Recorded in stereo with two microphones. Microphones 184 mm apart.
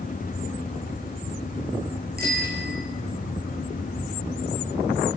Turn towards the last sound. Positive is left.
turn(degrees=-55)  # may be behind; listen again after turning